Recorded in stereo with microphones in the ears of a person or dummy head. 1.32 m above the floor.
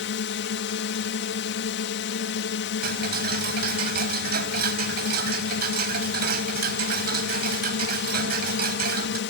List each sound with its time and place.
0.0 s a drone: 65° left (ahead or behind)
2.8 s ticking: 50° right (ahead or behind)